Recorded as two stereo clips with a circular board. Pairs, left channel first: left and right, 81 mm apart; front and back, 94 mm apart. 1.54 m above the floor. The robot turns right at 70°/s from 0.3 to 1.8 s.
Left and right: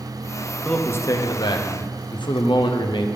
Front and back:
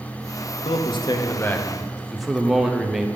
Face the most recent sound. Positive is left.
turn(degrees=90)